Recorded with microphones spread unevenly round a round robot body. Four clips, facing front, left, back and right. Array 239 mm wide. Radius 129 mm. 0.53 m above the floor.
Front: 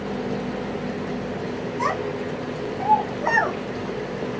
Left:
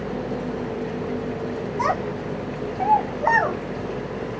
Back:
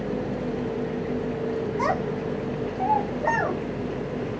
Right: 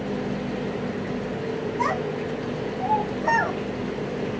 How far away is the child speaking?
About 0.7 m.